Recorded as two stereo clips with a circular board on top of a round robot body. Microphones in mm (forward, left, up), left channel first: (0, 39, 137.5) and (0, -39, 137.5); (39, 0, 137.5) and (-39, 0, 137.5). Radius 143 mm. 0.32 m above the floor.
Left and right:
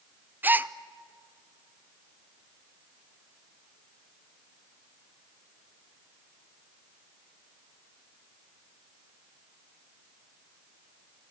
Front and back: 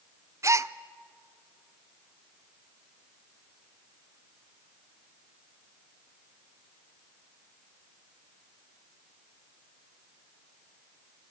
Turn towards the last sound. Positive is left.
turn(degrees=-145)